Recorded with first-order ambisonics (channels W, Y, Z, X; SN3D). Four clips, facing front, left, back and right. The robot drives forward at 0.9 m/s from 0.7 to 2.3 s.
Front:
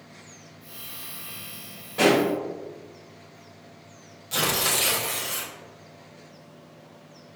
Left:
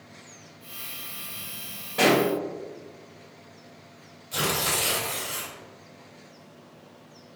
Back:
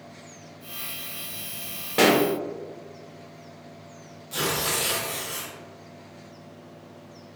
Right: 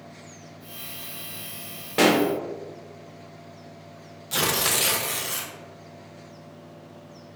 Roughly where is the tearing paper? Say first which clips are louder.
Right 2 dB, front 2 dB; right.